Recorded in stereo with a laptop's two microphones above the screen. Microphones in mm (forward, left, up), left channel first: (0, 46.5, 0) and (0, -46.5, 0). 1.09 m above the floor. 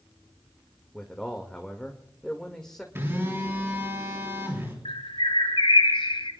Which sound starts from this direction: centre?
A man speaking, at 0.9 s.